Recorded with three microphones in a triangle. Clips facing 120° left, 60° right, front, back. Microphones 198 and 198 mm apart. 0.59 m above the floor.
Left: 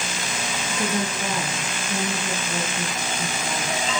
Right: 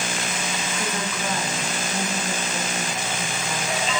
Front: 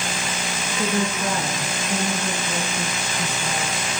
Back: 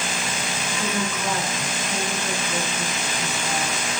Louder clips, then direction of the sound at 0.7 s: Left 7 dB, front 4 dB; 55° left.